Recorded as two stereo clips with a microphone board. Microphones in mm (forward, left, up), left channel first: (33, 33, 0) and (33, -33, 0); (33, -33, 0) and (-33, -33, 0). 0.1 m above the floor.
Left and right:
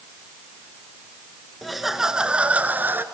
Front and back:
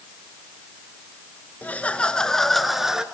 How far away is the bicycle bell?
I don't hear a bicycle bell.